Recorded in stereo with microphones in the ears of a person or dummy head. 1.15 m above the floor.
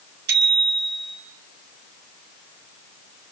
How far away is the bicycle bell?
About 5 m.